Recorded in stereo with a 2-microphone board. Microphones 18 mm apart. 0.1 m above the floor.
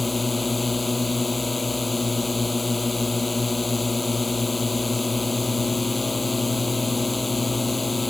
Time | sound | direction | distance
0.0 | a drone | centre (ahead or behind) | ?